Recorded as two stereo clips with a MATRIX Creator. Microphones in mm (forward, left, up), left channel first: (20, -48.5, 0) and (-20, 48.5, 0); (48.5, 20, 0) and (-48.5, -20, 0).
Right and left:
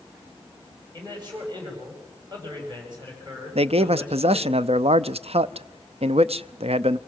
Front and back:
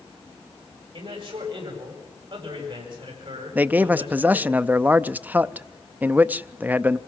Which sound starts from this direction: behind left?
A man speaking, at 3.5 s.